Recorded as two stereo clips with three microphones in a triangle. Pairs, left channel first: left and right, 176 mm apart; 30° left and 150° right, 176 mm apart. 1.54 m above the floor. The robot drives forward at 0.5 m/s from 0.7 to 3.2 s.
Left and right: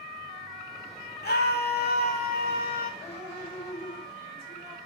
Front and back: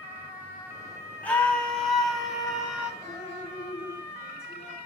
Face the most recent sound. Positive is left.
turn(degrees=100)